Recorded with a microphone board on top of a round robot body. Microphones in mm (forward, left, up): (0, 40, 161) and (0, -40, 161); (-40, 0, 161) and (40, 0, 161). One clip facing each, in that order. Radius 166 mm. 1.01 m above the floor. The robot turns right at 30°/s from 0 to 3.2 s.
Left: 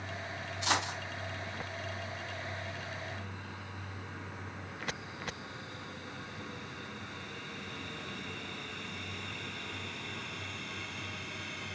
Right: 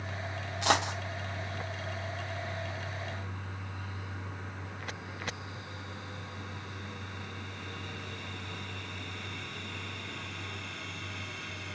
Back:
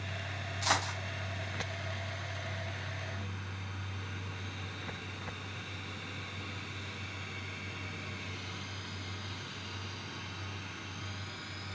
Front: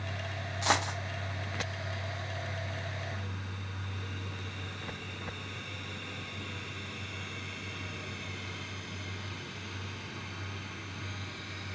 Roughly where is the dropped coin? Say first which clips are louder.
Right 5 dB, front 3 dB; ahead right.